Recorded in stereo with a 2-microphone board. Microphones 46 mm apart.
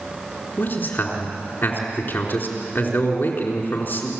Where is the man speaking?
40° left (ahead or behind), 4 m.